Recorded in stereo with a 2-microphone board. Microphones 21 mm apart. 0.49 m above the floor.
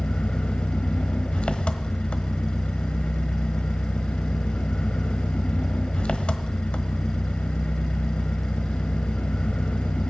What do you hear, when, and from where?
0.0 s an engine running: 80° left, 1.1 m